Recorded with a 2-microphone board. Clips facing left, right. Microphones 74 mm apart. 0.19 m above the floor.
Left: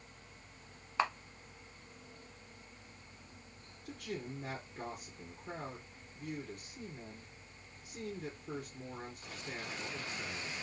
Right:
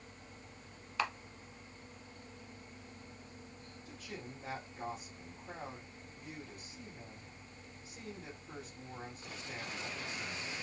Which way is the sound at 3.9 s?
60° left (ahead or behind).